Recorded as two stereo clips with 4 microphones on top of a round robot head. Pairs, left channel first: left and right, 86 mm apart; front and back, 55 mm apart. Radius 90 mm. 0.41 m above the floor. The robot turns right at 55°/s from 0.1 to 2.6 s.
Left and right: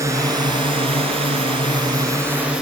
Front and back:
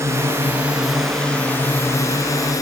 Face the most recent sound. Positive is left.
turn(degrees=-5)